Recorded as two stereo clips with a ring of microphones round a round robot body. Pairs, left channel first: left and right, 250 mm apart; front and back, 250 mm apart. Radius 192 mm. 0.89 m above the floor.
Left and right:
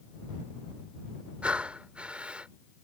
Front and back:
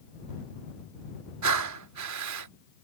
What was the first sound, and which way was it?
Breathing, 175° right.